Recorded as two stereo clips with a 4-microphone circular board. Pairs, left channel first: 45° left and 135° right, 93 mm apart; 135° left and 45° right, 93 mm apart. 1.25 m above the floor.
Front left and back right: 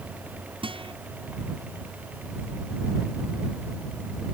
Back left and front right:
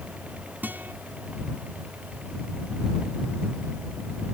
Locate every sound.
0.6 s a guitar: 115° right